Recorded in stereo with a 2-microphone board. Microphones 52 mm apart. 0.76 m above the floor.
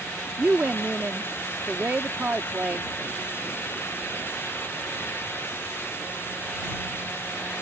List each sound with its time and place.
0.4 s a woman speaking: 35° right (ahead or behind)